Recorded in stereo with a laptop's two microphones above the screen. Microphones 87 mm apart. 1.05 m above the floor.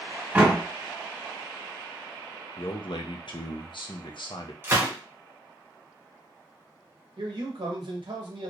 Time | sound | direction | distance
0.3 | a door slam | 20° right (ahead or behind) | 1.8 m
2.6 | a man speaking | 65° left (ahead or behind) | 0.8 m
4.6 | a gunshot | 25° right (ahead or behind) | 1.4 m
7.2 | a man speaking | 65° right (ahead or behind) | 1.3 m